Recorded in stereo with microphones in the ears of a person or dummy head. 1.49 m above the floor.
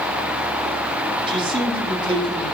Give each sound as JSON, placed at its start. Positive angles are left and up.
{"t": 1.3, "sound": "a man speaking", "side_deg": -30, "distance_m": 3.0}